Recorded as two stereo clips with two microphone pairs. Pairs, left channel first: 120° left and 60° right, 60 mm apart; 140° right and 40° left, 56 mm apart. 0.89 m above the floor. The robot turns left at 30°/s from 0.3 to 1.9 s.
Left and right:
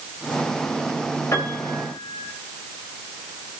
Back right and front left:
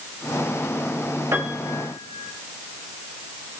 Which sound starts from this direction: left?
A piano, at 1.3 s.